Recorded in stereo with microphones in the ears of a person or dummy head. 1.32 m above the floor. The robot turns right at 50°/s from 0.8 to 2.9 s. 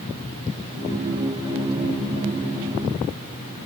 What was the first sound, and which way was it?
Only background noise.